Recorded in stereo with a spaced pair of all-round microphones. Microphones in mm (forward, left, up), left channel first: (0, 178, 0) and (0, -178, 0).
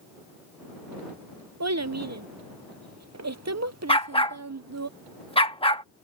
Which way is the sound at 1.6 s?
45° right (ahead or behind).